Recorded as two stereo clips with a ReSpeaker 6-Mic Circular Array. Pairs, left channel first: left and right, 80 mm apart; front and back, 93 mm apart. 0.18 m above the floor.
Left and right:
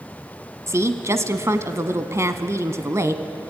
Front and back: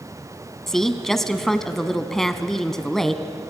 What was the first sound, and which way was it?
A woman speaking, 85° right.